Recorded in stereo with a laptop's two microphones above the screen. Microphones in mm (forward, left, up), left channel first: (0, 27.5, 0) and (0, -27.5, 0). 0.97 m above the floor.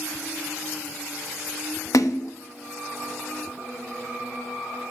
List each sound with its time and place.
1.9 s a splash: 80° left, 0.9 m